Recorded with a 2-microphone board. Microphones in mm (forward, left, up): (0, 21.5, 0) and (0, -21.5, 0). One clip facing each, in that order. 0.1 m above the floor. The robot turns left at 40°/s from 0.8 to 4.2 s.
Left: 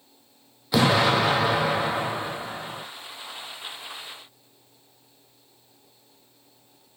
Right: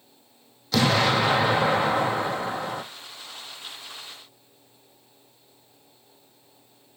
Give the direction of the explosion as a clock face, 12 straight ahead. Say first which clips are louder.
Left 1 dB; 11 o'clock.